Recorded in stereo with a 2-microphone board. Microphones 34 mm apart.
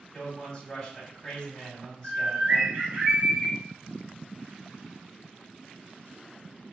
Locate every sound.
0.1 s a man speaking: 20° left (ahead or behind), 1.7 m
2.0 s a bird: 45° right (ahead or behind), 1.4 m